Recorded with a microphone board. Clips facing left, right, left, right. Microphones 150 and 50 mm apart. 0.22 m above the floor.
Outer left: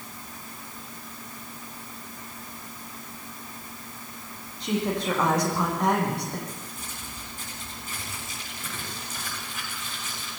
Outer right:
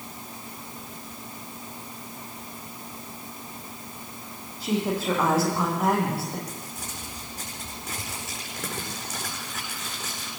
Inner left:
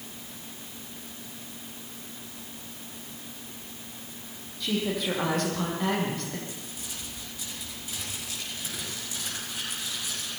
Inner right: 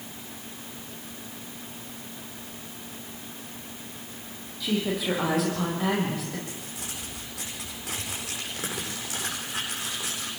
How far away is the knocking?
No knocking in this recording.